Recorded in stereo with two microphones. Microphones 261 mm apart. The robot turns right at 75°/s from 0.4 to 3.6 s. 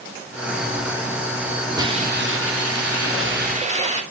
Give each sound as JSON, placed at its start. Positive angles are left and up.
{"t": 1.8, "sound": "a hiss", "azimuth_deg": -165, "distance_m": 2.5}